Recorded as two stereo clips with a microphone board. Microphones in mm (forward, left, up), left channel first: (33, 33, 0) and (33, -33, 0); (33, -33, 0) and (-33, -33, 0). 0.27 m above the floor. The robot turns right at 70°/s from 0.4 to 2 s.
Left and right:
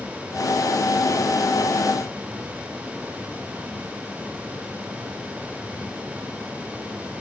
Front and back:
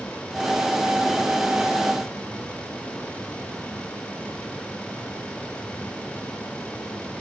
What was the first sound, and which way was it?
Only background noise.